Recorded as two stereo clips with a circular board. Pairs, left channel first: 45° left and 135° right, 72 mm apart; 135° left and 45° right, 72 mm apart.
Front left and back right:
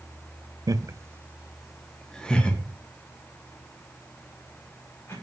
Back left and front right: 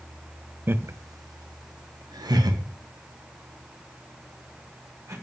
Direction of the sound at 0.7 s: 105° right.